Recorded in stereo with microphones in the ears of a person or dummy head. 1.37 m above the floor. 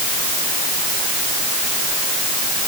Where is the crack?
I don't hear a crack.